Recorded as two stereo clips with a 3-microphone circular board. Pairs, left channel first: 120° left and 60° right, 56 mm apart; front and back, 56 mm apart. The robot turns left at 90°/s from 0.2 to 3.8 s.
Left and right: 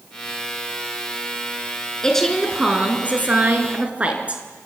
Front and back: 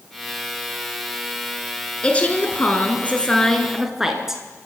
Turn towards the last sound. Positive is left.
turn(degrees=-100)